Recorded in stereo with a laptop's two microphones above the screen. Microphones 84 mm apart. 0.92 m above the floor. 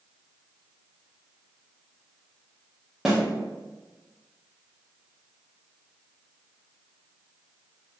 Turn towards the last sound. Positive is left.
turn(degrees=-5)  # may be behind; listen again after turning